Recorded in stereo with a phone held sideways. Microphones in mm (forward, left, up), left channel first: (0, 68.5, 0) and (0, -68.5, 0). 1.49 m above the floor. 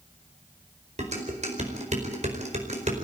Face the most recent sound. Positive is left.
turn(degrees=-55)  # may be behind; listen again after turning